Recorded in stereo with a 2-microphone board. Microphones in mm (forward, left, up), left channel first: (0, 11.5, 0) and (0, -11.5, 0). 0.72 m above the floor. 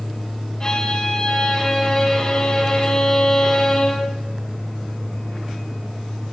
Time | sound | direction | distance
0.6 | a violin | 25° left (ahead or behind) | 6.5 m